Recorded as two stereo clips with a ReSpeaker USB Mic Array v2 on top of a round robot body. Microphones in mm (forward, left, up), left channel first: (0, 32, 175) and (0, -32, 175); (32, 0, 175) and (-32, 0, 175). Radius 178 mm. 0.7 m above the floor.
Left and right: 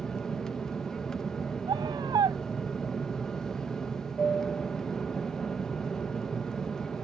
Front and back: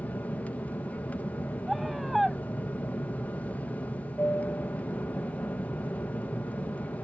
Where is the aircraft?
20° left.